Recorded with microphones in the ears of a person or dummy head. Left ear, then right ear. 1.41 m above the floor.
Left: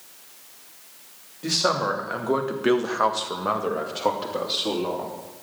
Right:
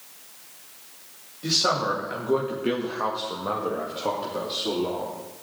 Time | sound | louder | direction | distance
1.4 | a man speaking | even | 20° left (ahead or behind) | 3 m